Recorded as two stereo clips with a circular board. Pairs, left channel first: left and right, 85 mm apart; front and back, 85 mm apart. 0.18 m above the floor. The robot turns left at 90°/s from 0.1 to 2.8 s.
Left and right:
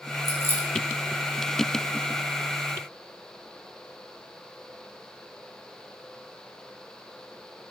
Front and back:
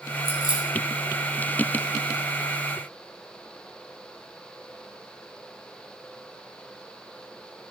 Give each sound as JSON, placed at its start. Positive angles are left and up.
{"t": 0.2, "sound": "keys jangling", "azimuth_deg": 45, "distance_m": 3.0}